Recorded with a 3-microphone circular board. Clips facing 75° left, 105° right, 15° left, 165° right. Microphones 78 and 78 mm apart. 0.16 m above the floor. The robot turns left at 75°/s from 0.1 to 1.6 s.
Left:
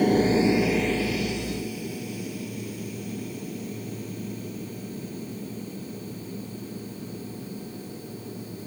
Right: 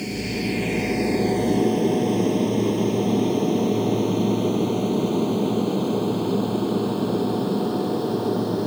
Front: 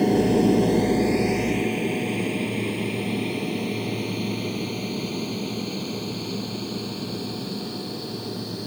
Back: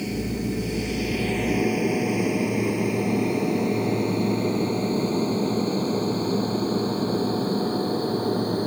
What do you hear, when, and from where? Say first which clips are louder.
0.0 s an aircraft: left 7 dB, front 9 dB; 40° left; by 8.7 s 115° right